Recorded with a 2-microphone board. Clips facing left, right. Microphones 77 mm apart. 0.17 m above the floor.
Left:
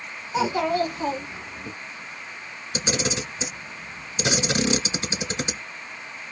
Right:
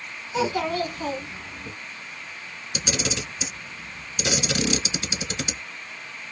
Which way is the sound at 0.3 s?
15° left (ahead or behind).